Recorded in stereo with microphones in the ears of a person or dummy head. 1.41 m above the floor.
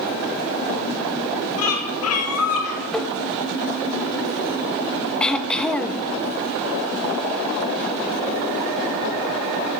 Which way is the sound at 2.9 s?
5° left (ahead or behind).